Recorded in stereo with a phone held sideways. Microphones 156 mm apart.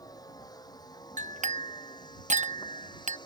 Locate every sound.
0.0 s a vehicle: 25° left (ahead or behind); by 3.3 s 30° left (ahead or behind)
1.2 s a clink: 50° right (ahead or behind)